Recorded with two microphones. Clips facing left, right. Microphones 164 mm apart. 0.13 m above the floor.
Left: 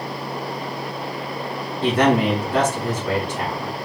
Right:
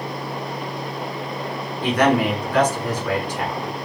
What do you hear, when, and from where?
1.8 s a man speaking: 30° left (ahead or behind), 1.3 m